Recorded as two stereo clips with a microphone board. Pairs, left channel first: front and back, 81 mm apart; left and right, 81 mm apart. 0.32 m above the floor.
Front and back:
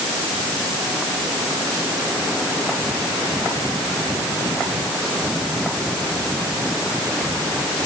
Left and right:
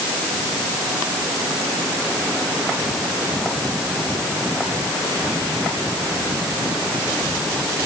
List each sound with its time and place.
Only background noise.